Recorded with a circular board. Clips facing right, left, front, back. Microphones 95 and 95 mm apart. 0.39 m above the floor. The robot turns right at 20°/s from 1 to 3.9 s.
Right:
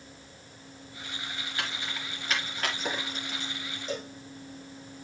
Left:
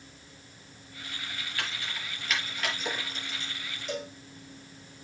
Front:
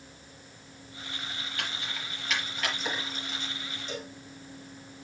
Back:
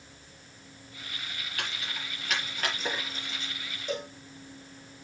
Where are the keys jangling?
160° right, 5 m; by 3.5 s 120° right, 5 m.